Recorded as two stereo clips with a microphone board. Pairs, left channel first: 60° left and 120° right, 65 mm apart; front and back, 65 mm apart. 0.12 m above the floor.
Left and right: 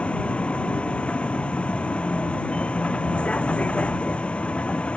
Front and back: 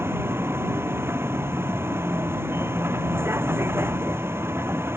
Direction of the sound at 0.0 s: 130° left.